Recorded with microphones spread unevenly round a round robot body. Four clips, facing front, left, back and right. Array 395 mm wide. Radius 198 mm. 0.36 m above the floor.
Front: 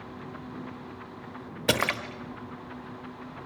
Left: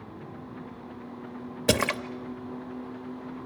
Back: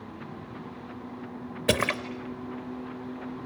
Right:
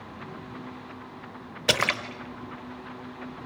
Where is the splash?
130° left, 0.9 m.